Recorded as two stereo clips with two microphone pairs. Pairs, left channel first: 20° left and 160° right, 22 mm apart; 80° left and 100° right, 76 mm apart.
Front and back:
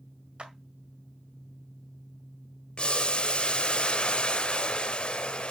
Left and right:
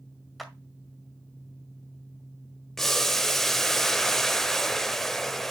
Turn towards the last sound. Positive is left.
turn(degrees=-5)